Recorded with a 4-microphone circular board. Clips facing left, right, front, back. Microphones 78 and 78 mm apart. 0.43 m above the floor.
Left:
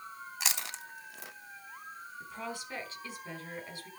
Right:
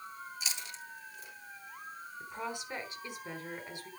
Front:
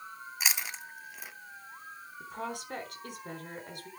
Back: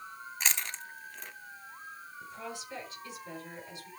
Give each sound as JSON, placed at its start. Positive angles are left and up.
{"t": 0.4, "sound": "chewing", "azimuth_deg": 85, "distance_m": 0.8}
{"t": 2.2, "sound": "a woman speaking", "azimuth_deg": -20, "distance_m": 4.0}